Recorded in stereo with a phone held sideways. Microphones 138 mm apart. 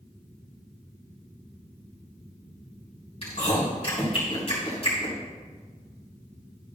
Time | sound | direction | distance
3.2 | chewing | 45° left (ahead or behind) | 4 m